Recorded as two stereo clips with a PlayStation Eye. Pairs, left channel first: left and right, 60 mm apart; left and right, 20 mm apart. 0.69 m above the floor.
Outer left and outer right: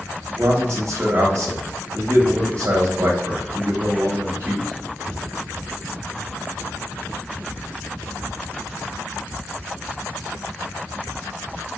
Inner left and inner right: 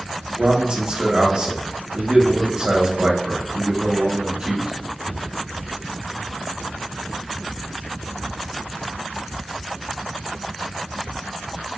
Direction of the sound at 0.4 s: 55° right (ahead or behind).